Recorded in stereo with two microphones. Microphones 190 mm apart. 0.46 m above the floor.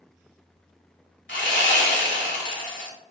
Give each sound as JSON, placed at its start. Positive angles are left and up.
{"t": 1.3, "sound": "sawing", "side_deg": 80, "distance_m": 0.8}